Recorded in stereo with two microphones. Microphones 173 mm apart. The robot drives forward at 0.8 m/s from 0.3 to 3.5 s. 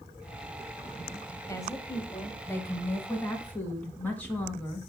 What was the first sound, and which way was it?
A woman speaking, 20° left (ahead or behind).